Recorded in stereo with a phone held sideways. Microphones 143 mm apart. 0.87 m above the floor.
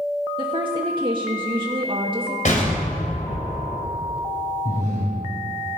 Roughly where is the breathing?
Left.